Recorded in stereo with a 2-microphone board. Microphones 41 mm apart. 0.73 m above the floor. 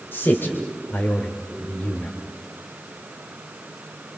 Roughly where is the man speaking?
Left.